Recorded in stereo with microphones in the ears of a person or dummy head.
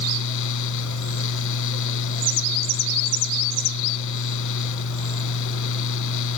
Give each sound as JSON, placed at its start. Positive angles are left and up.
{"t": 0.0, "sound": "a fan", "side_deg": 65}